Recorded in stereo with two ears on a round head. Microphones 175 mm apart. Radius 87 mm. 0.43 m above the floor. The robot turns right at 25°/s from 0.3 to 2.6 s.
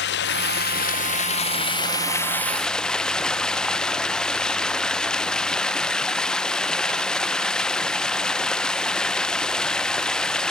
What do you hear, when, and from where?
0.0 s running water: 120° left; by 10.5 s 175° left